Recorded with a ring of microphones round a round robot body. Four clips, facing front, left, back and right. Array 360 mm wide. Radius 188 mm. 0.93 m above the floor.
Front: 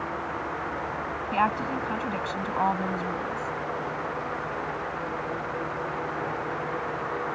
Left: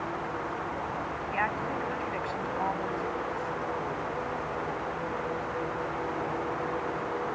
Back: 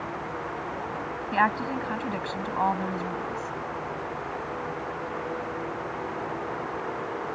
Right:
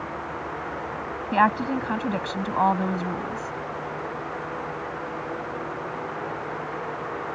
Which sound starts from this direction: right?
A woman speaking, at 1.3 s.